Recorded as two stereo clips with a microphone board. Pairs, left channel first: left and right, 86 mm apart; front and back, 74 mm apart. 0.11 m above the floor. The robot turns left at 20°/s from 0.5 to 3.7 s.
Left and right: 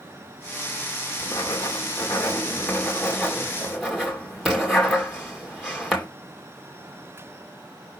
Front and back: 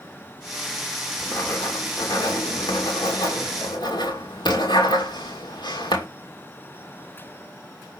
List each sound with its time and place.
1.2 s writing: 50° left, 2.5 m; by 6.1 s straight ahead, 2.5 m